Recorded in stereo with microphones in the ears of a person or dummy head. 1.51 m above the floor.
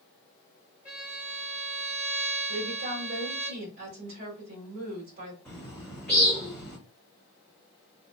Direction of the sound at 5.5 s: Centre (ahead or behind).